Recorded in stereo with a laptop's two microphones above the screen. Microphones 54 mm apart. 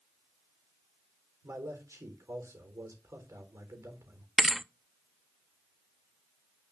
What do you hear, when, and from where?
1.4 s a man speaking: 65° right (ahead or behind), 4 m
4.4 s a thud: centre (ahead or behind), 0.5 m